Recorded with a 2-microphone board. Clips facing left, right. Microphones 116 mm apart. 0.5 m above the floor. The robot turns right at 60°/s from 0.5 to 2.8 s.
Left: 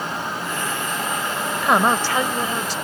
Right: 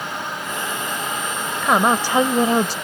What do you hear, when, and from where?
1.6 s a woman speaking: 175° left; by 2.8 s 120° right